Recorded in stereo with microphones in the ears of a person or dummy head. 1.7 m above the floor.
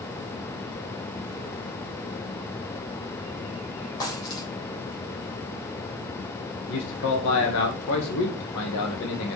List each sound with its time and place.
4.0 s a dropped coin: 20° left (ahead or behind), 3.5 m
6.7 s a man speaking: 70° left (ahead or behind), 1.9 m